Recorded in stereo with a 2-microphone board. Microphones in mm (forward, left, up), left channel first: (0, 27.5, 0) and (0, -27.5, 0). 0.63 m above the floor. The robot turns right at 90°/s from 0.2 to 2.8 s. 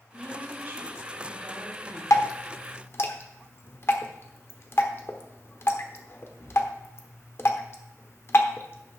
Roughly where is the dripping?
Left.